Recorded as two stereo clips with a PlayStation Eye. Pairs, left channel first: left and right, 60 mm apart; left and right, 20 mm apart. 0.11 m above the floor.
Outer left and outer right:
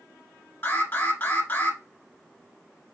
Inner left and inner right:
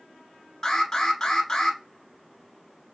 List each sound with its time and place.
0.6 s an alarm: 35° left (ahead or behind), 1.3 m